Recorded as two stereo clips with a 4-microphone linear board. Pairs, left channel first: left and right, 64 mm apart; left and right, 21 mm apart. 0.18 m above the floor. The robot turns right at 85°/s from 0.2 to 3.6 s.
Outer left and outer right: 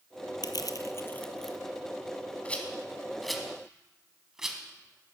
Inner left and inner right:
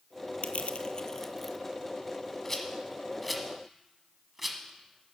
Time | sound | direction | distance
0.4 | crushing | 85° left | 0.6 m
2.5 | a rattle | 20° left (ahead or behind) | 1.0 m